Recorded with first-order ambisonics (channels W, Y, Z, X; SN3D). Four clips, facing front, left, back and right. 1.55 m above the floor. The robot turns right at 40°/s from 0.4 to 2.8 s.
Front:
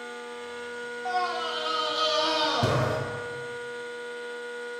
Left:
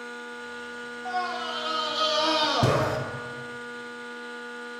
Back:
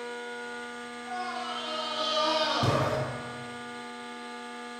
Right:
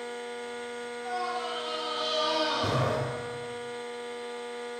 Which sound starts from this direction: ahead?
A scream, at 1.1 s.